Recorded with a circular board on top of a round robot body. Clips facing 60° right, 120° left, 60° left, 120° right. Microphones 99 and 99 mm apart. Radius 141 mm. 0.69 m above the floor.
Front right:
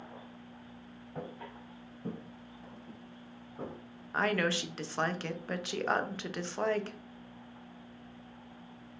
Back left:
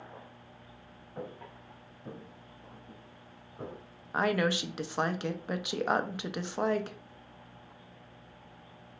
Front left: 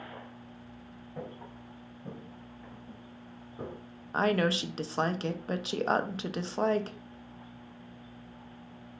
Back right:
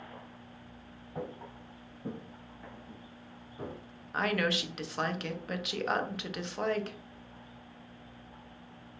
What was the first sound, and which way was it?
Footsteps, 95° right.